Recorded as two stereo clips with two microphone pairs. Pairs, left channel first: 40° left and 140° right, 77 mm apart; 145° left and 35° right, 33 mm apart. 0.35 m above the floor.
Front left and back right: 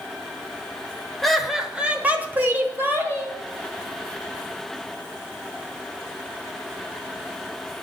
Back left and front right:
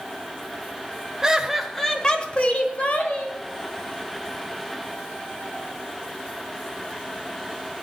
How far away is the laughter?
About 1.1 m.